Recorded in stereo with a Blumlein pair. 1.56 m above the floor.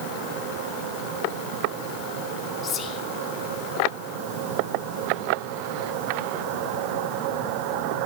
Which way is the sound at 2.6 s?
30° left.